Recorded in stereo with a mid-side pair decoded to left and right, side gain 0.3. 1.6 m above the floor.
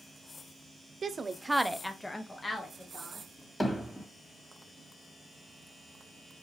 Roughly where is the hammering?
Ahead left.